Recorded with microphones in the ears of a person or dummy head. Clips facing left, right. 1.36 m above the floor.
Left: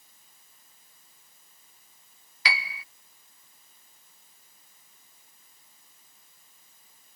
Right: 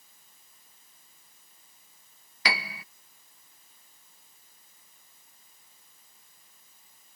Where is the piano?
50° right (ahead or behind).